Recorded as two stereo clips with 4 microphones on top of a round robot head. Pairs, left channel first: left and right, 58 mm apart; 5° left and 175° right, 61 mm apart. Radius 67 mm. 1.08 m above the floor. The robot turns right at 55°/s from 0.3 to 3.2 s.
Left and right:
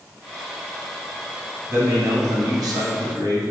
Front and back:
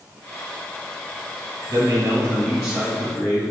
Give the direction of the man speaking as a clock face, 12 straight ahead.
5 o'clock.